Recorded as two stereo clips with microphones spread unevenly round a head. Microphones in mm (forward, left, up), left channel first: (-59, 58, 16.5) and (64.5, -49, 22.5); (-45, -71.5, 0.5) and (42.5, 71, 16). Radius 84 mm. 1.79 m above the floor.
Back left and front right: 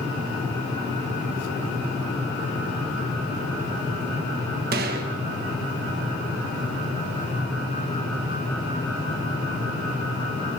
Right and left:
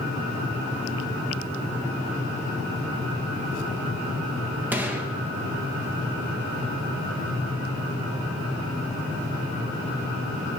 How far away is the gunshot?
About 1.4 m.